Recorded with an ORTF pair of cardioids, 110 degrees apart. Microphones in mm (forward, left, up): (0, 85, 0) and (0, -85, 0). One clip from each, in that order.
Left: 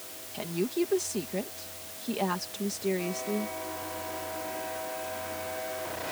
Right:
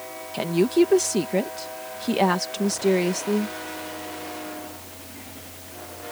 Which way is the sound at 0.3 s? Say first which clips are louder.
Right 10 dB; 50° right.